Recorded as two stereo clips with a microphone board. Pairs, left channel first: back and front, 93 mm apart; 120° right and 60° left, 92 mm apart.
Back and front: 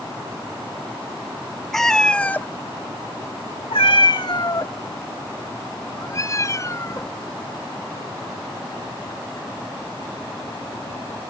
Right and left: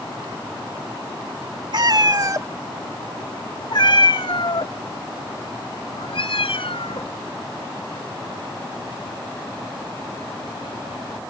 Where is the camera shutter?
No camera shutter in this recording.